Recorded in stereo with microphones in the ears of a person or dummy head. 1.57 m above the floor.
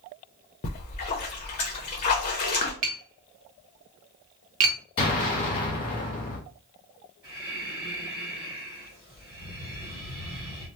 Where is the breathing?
5° right (ahead or behind), 1.6 m.